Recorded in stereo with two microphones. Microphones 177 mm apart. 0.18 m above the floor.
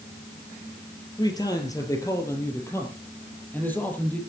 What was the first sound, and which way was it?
A man speaking, 20° left (ahead or behind).